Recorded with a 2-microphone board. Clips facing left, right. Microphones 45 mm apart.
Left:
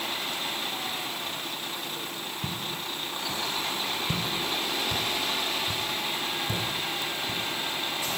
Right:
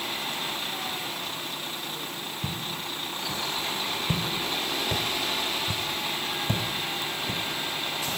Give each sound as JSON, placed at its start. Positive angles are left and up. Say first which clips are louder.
{"t": 2.4, "sound": "footsteps", "louder": "even", "side_deg": 5, "distance_m": 2.0}